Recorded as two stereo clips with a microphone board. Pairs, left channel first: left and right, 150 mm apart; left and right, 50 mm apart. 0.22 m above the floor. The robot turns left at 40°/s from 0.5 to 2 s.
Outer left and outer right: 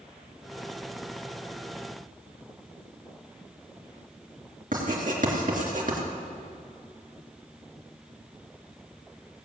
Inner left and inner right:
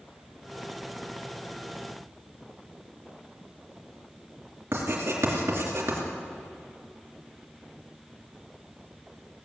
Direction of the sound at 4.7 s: 60° right (ahead or behind).